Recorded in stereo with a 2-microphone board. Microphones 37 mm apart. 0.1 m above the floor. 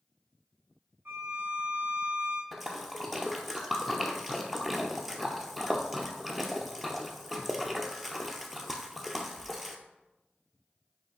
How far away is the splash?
About 0.8 m.